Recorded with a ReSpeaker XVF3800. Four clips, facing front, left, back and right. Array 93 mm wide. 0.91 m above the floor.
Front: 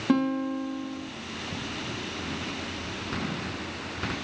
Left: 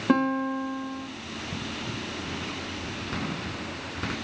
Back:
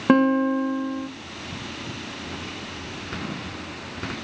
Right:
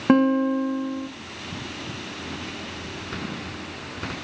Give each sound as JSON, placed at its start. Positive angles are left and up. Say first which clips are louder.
{"t": 0.1, "sound": "a guitar", "louder": "right 6 dB, back 7 dB", "azimuth_deg": -150, "distance_m": 1.0}